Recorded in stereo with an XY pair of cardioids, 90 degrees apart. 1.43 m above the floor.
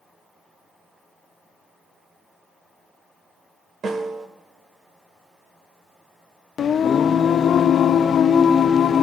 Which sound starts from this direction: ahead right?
A snare drum, at 3.8 s.